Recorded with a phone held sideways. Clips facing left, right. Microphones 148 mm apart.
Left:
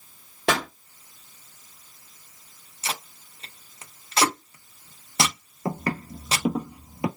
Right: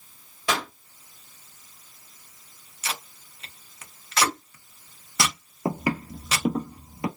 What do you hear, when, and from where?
0.5 s a pop: 60° left (ahead or behind), 1.2 m
2.8 s tape being pulled: 30° left (ahead or behind), 0.7 m
5.7 s footsteps: 20° right (ahead or behind), 1.1 m; by 7.1 s 20° left (ahead or behind), 1.2 m